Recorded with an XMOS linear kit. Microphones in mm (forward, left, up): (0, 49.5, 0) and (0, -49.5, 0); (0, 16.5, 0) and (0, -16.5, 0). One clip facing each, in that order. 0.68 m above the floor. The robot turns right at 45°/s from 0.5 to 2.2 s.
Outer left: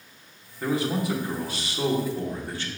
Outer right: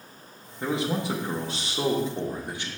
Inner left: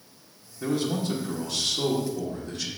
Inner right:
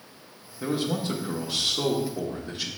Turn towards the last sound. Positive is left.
turn(degrees=-20)  # may be behind; listen again after turning